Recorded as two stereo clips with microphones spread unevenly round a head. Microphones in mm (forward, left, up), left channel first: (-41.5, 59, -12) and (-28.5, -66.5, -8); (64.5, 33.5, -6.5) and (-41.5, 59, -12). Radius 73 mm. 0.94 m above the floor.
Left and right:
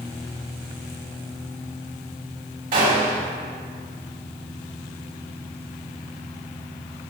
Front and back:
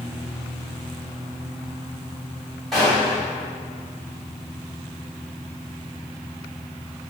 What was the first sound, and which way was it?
A gunshot, 105° right.